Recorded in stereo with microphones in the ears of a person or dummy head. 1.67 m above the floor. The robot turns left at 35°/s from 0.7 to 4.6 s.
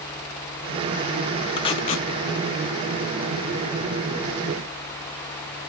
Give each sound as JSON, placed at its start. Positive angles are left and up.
{"t": 1.6, "sound": "tape being pulled", "side_deg": 25, "distance_m": 0.6}